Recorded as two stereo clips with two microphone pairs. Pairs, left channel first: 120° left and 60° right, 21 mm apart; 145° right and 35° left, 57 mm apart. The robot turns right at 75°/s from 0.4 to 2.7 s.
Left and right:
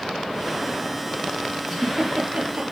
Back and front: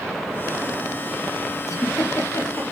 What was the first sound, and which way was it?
A giggle, 155° right.